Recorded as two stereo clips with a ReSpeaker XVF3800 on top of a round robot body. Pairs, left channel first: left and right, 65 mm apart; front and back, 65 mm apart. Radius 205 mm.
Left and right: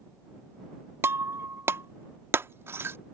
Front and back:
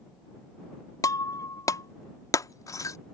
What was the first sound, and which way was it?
Breaking glass, 35° right.